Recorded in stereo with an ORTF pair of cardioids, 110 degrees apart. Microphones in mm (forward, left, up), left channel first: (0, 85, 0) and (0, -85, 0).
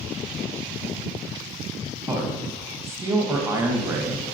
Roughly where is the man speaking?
Ahead.